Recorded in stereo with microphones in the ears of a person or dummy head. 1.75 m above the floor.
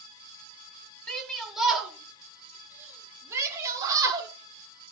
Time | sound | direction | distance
1.1 | a shout | 5° left (ahead or behind) | 5 m